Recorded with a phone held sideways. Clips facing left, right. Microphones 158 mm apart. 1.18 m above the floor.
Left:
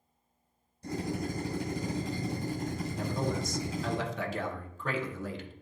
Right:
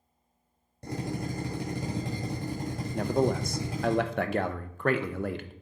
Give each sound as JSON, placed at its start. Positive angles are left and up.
{"t": 0.8, "sound": "a drill", "side_deg": -75, "distance_m": 3.5}
{"t": 2.9, "sound": "a man speaking", "side_deg": -65, "distance_m": 0.7}